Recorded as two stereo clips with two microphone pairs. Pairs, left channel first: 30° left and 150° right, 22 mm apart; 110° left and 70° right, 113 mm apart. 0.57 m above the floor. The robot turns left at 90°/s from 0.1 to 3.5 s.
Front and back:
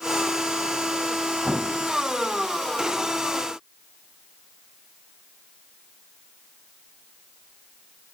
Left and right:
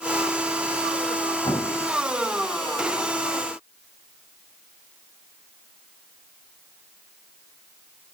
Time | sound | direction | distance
1.4 | an explosion | 160° left | 1.4 m